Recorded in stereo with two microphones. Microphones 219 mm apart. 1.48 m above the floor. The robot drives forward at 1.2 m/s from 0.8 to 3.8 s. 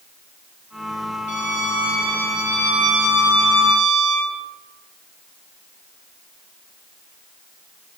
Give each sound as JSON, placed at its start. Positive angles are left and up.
{"t": 1.3, "sound": "a violin", "side_deg": -50, "distance_m": 1.7}